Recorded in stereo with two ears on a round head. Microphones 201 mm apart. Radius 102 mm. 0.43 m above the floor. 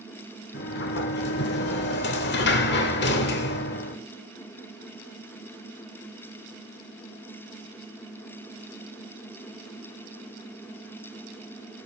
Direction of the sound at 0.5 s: 50° left (ahead or behind).